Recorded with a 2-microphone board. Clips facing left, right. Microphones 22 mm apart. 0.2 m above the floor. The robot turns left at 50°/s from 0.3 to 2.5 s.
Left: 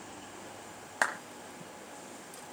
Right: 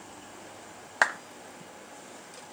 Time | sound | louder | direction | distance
1.0 | a clap | right 5 dB | 20° right (ahead or behind) | 1.2 m